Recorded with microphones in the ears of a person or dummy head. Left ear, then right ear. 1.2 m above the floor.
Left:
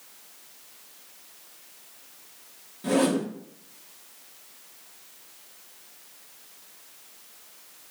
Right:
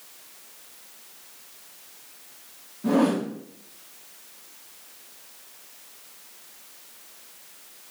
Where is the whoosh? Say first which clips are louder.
Right 1 dB; 60° left (ahead or behind), 1.5 m.